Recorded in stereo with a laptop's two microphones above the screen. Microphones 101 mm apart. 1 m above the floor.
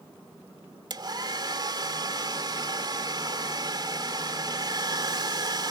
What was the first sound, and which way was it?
A hair dryer, 45° right (ahead or behind).